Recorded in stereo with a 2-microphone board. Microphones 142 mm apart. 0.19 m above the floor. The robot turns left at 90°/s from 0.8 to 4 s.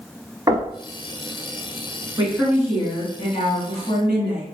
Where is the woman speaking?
140° right, 1.6 m; by 4.4 s 55° left, 1.6 m.